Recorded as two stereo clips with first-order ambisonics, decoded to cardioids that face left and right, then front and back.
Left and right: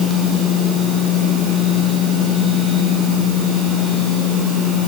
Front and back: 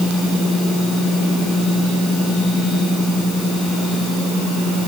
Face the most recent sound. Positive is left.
No sound to turn to.